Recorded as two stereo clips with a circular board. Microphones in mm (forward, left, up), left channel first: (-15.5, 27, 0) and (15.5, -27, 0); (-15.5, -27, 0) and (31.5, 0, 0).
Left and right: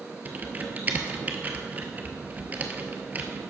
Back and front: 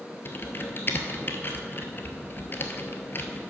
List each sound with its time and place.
0.2 s typing on a keyboard: 115° right, 0.9 m